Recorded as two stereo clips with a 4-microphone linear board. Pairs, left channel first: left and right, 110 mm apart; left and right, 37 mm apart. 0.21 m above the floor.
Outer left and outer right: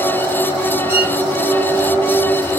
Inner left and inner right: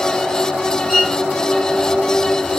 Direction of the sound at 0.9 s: 15° right (ahead or behind).